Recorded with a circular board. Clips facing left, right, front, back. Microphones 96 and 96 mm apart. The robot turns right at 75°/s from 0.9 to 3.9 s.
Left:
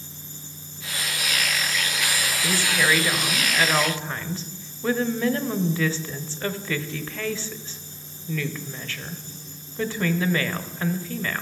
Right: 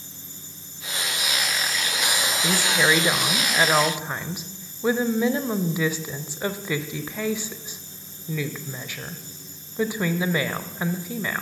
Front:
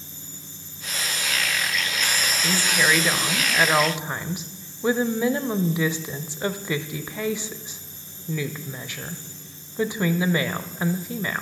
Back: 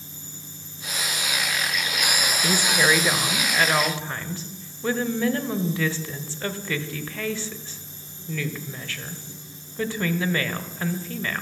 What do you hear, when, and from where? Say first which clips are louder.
2.4 s a woman speaking: right 1 dB, back 1 dB; 150° right, 1.0 m; by 11.4 s 40° right, 1.0 m